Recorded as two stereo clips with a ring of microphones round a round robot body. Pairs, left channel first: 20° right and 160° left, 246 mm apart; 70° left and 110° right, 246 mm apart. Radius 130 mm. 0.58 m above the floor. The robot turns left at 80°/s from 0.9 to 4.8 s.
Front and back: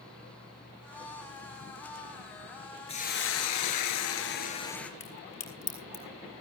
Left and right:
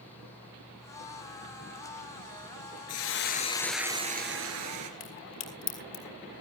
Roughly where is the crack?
Ahead left.